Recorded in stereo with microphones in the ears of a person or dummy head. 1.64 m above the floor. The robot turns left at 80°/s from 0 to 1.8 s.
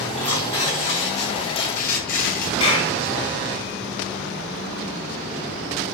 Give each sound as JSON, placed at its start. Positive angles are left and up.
{"t": 0.2, "sound": "tearing paper", "azimuth_deg": 180, "distance_m": 6.0}
{"t": 2.6, "sound": "a clap", "side_deg": 35, "distance_m": 7.5}